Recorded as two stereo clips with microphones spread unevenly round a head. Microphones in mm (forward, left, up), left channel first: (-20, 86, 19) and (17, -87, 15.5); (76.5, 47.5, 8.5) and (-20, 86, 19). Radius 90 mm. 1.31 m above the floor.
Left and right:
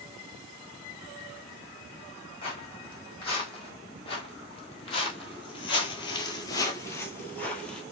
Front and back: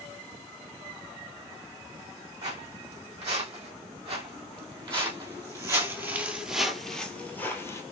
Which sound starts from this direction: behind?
Footsteps, at 2.4 s.